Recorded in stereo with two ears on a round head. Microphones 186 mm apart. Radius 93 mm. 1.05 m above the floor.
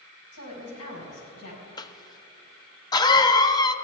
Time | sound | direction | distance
0.3 | a woman speaking | 90° left | 4.5 m
1.8 | a cough | 20° left (ahead or behind) | 0.6 m